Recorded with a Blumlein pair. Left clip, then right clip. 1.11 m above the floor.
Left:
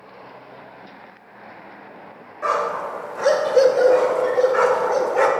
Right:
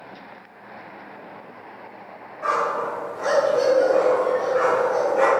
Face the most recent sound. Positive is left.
turn(degrees=70)